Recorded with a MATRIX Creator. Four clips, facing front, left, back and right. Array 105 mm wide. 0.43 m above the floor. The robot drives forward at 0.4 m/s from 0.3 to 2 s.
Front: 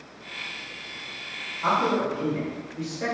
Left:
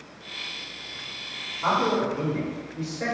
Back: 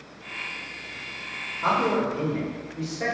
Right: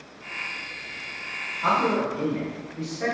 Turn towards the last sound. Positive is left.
turn(degrees=180)